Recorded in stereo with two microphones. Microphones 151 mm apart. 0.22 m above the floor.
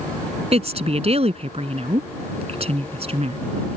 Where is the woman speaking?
45° right (ahead or behind).